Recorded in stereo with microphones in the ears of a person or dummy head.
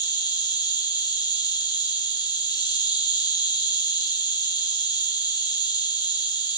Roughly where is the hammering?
I don't hear hammering.